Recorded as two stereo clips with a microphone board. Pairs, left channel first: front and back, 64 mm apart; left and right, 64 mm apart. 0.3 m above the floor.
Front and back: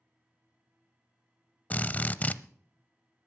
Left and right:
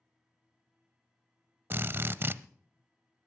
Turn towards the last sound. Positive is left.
turn(degrees=-55)